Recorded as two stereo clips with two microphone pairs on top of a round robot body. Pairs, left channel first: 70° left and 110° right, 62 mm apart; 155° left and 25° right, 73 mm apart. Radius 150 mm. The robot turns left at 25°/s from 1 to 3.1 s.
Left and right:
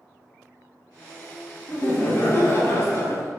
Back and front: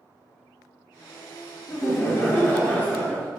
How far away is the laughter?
About 1.1 m.